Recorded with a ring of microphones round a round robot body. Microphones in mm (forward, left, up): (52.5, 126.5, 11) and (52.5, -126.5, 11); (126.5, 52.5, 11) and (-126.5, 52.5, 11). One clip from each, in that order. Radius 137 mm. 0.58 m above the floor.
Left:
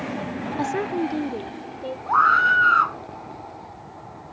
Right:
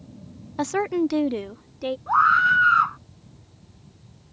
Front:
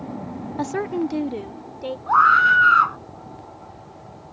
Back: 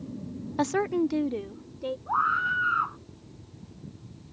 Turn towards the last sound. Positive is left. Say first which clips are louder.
# left 1 dB, front 12 dB
turn(degrees=0)